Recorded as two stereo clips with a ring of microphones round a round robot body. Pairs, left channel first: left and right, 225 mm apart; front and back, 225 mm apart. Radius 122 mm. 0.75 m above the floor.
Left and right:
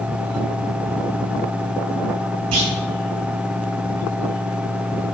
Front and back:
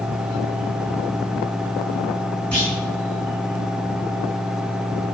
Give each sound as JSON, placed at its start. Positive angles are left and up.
{"t": 2.5, "sound": "a clunk", "azimuth_deg": -85, "distance_m": 3.0}